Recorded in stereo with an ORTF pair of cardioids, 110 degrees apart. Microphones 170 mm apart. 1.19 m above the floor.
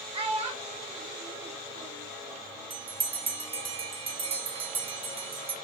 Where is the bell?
35° right, 0.7 m.